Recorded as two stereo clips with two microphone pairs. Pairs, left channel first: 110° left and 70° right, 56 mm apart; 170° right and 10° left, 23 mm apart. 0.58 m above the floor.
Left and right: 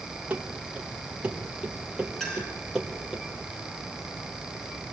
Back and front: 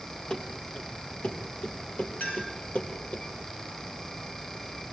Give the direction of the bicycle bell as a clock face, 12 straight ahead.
I don't hear a bicycle bell.